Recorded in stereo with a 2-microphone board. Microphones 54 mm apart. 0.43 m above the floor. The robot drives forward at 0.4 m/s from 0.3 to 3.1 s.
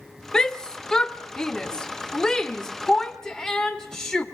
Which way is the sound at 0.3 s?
10° left (ahead or behind).